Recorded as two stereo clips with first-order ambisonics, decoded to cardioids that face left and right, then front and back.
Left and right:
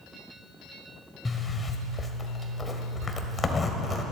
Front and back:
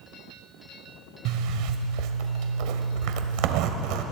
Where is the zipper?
165° left, 1.2 m.